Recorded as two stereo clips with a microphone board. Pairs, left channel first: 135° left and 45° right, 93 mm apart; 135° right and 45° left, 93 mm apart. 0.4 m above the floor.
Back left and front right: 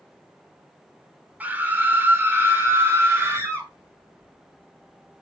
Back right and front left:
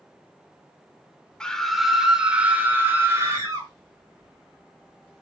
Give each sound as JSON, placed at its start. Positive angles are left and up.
{"t": 1.4, "sound": "a scream", "azimuth_deg": -75, "distance_m": 1.3}